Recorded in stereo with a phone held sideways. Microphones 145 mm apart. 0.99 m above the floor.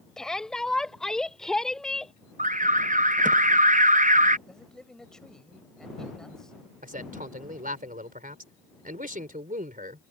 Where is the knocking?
I don't hear knocking.